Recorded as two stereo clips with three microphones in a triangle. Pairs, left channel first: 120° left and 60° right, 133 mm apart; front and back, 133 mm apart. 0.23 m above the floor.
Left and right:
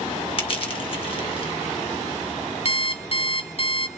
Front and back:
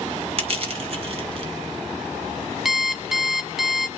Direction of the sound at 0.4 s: 155° left.